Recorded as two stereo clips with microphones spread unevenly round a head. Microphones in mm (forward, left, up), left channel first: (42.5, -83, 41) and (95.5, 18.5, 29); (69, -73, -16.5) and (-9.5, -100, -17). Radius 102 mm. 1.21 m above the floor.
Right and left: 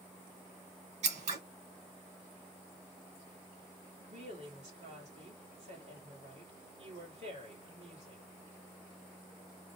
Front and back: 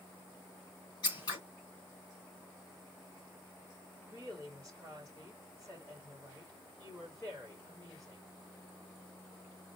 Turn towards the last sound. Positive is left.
turn(degrees=100)